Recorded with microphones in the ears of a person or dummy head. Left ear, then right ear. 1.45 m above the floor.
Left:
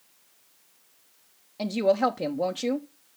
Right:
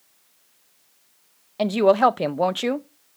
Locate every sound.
1.6 s a woman speaking: 40° right (ahead or behind), 0.6 m